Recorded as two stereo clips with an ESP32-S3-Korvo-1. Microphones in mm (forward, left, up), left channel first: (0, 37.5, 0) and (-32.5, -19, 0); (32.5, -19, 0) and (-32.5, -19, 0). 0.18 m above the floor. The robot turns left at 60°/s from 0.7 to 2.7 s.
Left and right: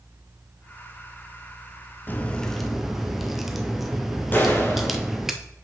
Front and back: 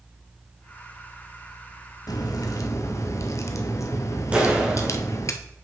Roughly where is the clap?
Behind left.